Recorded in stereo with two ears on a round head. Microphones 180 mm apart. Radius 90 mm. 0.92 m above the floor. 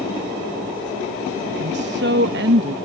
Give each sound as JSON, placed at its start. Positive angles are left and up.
{"t": 1.6, "sound": "a woman speaking", "side_deg": -60}